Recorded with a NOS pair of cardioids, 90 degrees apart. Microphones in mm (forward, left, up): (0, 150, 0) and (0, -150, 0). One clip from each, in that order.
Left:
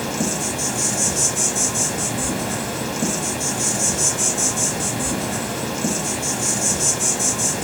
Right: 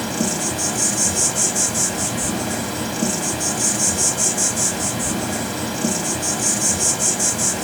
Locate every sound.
0.0 s an insect: 10° right, 1.1 m